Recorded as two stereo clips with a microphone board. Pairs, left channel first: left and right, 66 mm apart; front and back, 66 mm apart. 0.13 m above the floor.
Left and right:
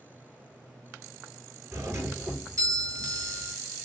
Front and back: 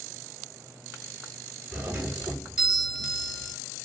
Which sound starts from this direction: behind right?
A doorbell, at 1.7 s.